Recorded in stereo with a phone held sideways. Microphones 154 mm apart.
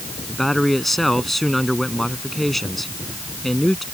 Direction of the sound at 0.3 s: Centre (ahead or behind).